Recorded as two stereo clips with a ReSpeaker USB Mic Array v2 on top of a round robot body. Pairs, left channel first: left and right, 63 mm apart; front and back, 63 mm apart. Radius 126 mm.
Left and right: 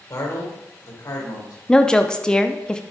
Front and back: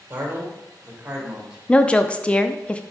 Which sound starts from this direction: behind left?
A man speaking, at 0.1 s.